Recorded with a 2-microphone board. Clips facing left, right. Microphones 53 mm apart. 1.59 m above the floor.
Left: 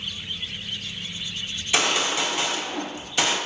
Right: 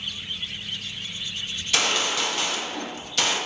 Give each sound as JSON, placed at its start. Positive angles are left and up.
{"t": 1.6, "sound": "a gunshot", "side_deg": 15, "distance_m": 0.6}